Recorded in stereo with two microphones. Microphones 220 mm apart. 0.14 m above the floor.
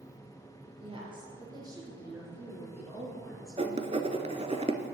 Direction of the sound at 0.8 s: 25° right (ahead or behind).